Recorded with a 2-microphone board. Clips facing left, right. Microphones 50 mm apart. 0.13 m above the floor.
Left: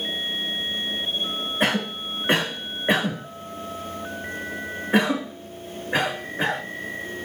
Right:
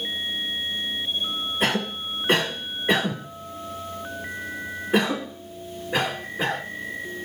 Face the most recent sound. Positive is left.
turn(degrees=35)  # may be behind; listen again after turning